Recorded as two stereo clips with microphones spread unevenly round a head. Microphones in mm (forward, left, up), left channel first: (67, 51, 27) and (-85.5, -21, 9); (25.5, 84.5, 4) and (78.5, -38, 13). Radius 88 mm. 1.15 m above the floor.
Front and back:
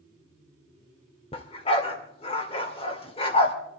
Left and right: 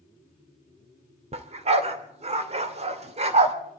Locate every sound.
1.3 s a dog barking: 30° right, 1.6 m